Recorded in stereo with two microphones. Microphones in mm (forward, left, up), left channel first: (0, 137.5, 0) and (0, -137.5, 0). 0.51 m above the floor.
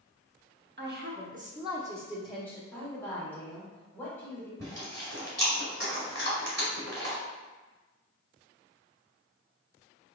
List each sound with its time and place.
0.8 s a woman speaking: 40° right (ahead or behind), 0.9 m; by 2.6 s 10° left (ahead or behind), 0.8 m
2.7 s a woman speaking: 5° left (ahead or behind), 1.8 m
4.6 s chewing: 55° right (ahead or behind), 1.8 m